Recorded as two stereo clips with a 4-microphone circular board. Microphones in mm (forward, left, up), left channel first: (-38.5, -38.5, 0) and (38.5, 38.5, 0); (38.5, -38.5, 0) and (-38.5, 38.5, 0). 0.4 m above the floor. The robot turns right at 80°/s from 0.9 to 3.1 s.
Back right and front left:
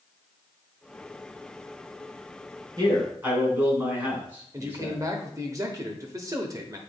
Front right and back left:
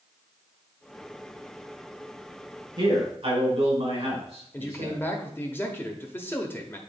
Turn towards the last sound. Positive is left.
turn(degrees=10)